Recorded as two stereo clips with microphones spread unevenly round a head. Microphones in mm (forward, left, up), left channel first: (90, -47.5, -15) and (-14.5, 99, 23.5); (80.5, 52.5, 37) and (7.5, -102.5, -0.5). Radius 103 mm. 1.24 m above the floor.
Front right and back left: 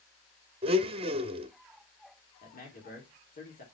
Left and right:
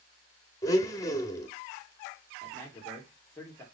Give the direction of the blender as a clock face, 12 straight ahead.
8 o'clock.